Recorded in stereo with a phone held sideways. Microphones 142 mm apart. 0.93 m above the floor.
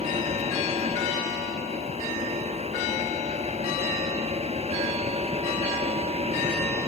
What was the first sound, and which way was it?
A fan, 45° right (ahead or behind).